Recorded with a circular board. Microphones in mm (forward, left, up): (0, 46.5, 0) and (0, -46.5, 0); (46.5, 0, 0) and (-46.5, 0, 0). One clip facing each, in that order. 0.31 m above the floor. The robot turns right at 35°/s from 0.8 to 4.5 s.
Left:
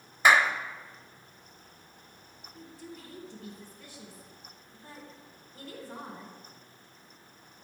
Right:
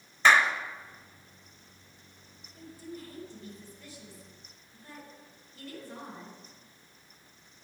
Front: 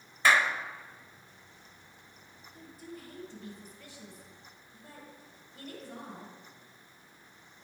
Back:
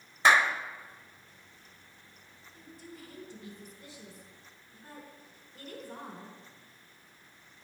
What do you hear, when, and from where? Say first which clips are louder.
0.2 s a clap: even, back 2 dB; 150° left, 0.7 m
2.5 s a woman speaking: right 3 dB, front 2 dB; 80° left, 3 m; by 6.4 s 145° left, 3 m